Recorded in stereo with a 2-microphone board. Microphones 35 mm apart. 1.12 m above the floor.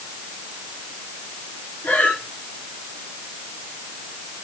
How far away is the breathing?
About 3 m.